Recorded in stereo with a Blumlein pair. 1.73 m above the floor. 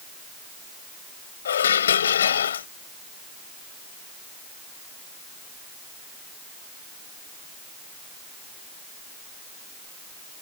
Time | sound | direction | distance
1.4 | dishes clattering | 65° left | ?